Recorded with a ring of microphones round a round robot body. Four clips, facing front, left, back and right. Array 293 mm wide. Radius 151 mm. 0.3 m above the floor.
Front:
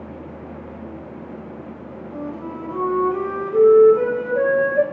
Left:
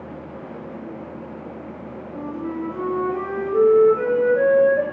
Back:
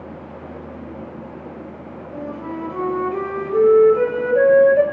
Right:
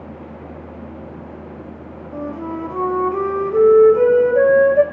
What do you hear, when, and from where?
2.1 s a flute: 105° right, 0.9 m